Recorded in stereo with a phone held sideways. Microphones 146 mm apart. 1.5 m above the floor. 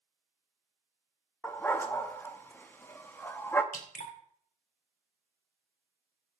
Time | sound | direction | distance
1.4 | a dog barking | 15° left (ahead or behind) | 0.9 m
3.7 | dripping | 75° left (ahead or behind) | 2.5 m